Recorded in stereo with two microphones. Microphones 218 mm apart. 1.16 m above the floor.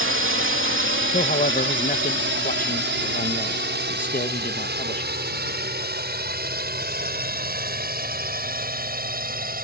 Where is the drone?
65° right (ahead or behind); by 9.7 s 40° right (ahead or behind).